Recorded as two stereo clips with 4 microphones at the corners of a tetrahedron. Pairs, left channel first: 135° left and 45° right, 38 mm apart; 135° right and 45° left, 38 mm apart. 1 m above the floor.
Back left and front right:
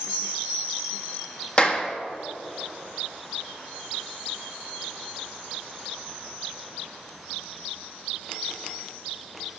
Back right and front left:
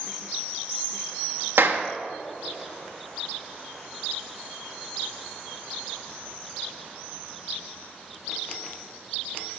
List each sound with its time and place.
1.6 s a clap: 70° left, 1.2 m